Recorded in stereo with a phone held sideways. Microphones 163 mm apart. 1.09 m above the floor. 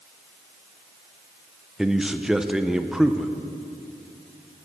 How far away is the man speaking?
About 0.6 m.